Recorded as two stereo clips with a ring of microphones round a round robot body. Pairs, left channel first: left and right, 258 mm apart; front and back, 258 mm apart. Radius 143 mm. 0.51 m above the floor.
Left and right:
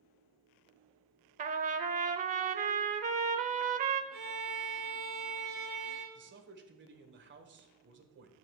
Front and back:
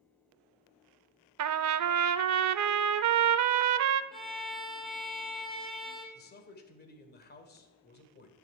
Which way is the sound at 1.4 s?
155° right.